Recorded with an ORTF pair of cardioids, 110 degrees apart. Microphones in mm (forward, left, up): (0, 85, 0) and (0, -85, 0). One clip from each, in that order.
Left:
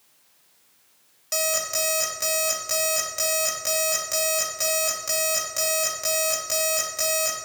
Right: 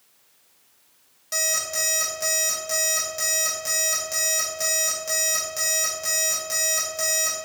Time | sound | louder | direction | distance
1.3 | an alarm clock | even | 20° left | 2.5 m